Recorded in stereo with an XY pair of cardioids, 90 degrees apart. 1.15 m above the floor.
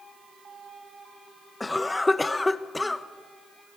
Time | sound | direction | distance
1.6 | a cough | 20° left | 0.8 m